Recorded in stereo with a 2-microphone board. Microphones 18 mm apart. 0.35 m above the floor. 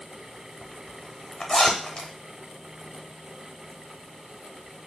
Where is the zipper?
35° left (ahead or behind), 0.8 m.